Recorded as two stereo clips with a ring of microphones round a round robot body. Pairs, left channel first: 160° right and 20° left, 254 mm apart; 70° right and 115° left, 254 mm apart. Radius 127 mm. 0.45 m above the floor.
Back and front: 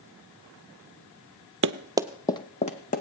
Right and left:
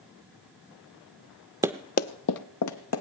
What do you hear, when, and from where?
1.6 s running footsteps: 40° left, 0.6 m; by 3.0 s 95° right, 1.6 m